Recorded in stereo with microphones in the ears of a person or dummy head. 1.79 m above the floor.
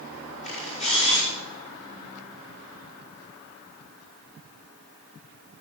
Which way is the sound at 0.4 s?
35° left (ahead or behind).